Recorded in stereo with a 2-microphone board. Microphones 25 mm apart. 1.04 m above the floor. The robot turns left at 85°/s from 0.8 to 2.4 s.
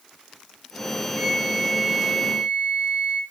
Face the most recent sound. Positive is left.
turn(degrees=-90)